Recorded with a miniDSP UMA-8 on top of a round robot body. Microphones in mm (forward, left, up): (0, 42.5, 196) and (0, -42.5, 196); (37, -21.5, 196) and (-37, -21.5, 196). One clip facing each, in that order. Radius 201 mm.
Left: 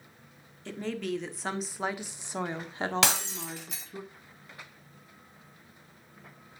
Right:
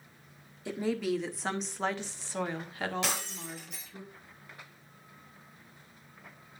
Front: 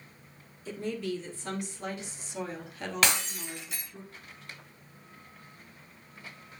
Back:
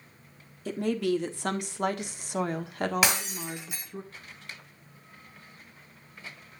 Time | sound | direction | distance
0.7 | a woman speaking | 170° right | 1.8 m
3.0 | breaking glass | 100° left | 1.2 m